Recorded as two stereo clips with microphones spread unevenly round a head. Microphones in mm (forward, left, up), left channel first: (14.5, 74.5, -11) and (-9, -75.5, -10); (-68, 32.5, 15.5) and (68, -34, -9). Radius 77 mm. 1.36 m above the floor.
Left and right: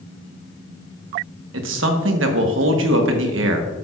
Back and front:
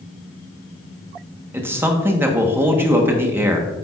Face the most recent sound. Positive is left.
turn(degrees=-105)